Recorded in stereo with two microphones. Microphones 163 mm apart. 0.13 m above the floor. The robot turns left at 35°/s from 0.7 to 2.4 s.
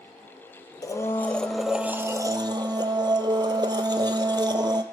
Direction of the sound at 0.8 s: 25° left.